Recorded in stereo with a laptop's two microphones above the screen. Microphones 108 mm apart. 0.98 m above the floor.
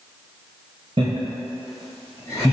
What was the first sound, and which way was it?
Laughter, 50° right (ahead or behind).